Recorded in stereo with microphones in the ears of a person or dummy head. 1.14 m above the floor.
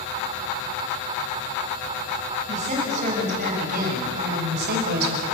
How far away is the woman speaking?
About 8 m.